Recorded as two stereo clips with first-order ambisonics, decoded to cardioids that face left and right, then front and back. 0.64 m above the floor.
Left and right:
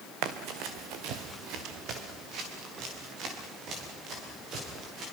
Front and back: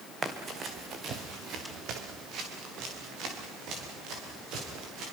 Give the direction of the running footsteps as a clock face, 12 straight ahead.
4 o'clock.